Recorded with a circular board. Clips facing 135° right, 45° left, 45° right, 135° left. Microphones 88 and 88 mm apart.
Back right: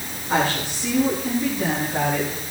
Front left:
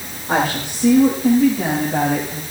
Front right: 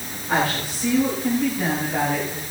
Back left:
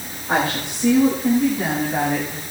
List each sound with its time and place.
0.3 s a woman speaking: 70° left, 7.5 m; by 2.4 s 55° left, 8 m